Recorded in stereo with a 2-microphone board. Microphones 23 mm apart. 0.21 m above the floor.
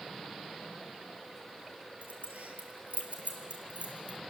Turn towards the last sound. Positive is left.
turn(degrees=-55)  # may be behind; listen again after turning